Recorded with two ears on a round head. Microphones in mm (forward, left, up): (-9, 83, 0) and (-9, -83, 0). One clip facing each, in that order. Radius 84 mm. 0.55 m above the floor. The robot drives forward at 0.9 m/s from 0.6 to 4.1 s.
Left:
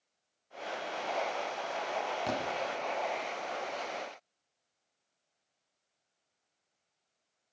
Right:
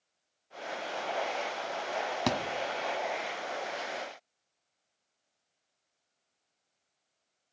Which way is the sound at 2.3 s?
75° right (ahead or behind).